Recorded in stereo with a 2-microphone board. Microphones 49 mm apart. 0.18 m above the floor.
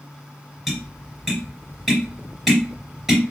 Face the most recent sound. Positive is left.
turn(degrees=0)  # may be behind; listen again after turning